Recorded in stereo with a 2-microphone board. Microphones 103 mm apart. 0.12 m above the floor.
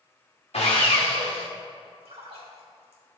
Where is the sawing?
80° left, 2.5 m.